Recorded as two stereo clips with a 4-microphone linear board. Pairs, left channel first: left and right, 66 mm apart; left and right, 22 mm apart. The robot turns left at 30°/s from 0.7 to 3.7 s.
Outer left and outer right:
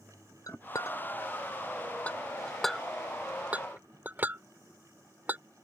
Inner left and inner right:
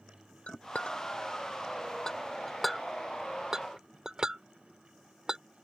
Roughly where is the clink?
Left.